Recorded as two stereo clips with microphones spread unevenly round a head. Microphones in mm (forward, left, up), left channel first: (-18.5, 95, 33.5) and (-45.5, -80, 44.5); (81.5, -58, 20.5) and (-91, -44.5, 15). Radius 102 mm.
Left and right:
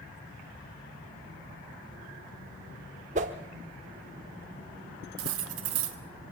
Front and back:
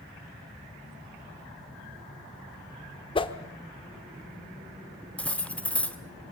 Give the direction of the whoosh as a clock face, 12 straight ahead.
2 o'clock.